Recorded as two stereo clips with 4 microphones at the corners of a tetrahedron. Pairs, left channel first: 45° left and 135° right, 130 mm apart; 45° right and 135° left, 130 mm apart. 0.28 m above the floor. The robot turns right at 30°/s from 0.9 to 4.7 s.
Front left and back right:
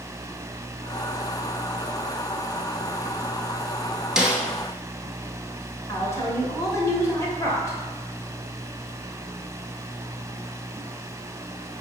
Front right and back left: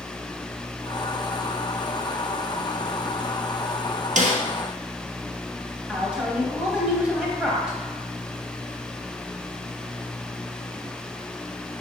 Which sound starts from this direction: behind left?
A snare drum, at 4.2 s.